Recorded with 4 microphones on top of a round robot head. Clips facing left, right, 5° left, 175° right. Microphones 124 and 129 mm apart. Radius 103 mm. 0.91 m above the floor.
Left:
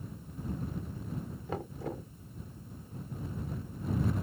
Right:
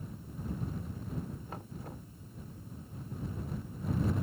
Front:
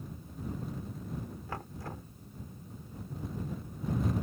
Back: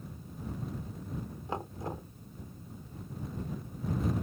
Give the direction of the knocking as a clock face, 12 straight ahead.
8 o'clock.